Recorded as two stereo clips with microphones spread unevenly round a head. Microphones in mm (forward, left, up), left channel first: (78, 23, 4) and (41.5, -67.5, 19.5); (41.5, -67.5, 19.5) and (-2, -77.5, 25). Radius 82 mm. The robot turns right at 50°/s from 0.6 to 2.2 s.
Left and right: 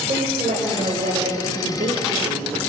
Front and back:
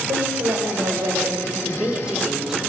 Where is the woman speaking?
170° right, 3.5 m; by 2.6 s 90° right, 3.5 m.